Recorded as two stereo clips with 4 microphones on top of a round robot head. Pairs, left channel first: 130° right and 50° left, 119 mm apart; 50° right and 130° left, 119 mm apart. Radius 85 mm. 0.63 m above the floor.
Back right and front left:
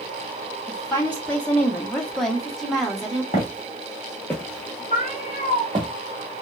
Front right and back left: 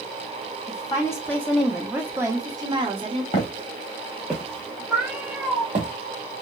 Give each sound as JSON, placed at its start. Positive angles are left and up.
{"t": 0.7, "sound": "a woman speaking", "azimuth_deg": -65, "distance_m": 0.9}
{"t": 3.3, "sound": "footsteps", "azimuth_deg": -95, "distance_m": 0.9}
{"t": 4.9, "sound": "a cat meowing", "azimuth_deg": -150, "distance_m": 0.8}